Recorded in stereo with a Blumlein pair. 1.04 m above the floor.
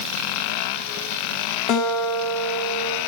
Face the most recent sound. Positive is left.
turn(degrees=35)